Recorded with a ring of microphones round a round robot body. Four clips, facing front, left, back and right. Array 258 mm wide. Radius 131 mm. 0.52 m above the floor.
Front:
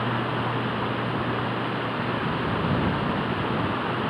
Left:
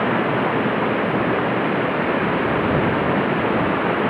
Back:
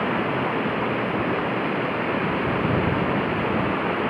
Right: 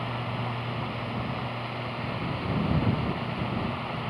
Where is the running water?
105° left.